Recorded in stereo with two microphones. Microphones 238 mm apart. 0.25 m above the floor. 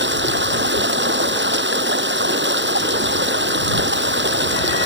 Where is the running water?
50° right (ahead or behind).